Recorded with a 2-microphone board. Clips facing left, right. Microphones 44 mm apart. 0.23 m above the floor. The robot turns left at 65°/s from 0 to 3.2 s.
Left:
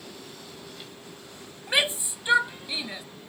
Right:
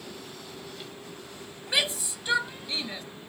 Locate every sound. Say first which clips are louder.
1.7 s a shout: left 3 dB; 25° left (ahead or behind); by 3.0 s 10° left (ahead or behind)